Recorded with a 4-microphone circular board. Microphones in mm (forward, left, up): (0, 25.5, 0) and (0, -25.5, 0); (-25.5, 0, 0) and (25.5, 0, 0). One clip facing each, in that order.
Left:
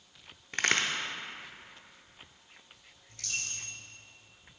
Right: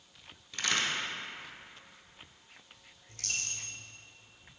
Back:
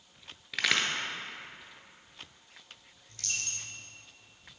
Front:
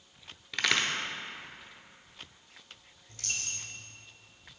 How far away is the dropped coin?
About 1.5 m.